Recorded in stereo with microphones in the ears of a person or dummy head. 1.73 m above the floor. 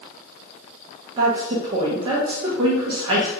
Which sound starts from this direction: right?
A woman speaking, at 1.2 s.